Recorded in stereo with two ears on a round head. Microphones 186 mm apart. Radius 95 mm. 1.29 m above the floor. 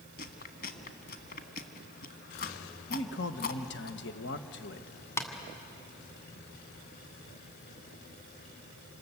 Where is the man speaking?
55° left (ahead or behind), 1.3 m.